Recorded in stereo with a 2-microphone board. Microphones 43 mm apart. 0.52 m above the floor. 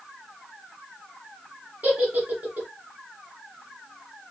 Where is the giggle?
40° right (ahead or behind), 1.2 m.